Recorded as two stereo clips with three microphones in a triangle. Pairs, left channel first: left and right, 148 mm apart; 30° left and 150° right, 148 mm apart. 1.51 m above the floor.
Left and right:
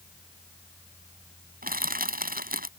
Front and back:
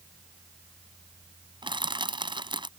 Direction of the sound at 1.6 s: 90° right.